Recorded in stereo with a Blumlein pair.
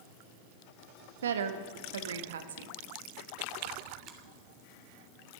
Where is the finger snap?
20° right, 2.5 m.